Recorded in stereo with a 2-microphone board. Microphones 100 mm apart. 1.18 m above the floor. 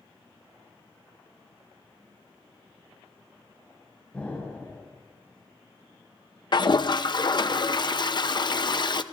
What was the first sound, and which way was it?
An explosion, 15° left (ahead or behind).